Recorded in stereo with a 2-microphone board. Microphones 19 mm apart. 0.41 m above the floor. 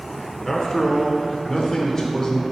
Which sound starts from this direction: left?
A man speaking, at 0.4 s.